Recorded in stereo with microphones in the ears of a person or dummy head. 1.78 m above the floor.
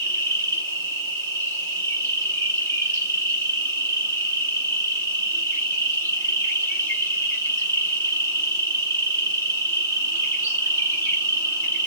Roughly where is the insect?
Centre.